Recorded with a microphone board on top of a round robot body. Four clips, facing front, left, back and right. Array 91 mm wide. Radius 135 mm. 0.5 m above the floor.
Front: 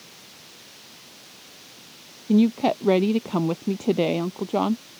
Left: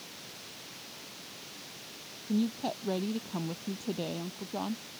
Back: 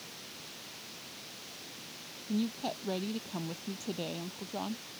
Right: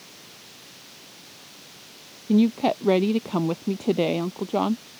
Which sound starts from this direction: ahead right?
A woman speaking, at 2.3 s.